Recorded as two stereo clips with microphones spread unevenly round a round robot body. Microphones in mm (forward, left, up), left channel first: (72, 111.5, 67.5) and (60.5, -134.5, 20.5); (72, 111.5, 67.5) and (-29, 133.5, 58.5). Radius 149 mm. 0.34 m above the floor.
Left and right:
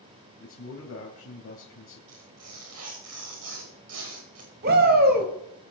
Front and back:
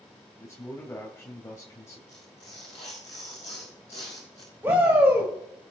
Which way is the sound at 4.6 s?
125° right.